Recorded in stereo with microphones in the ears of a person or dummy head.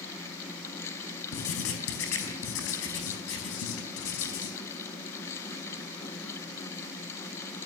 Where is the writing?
80° left, 4 m.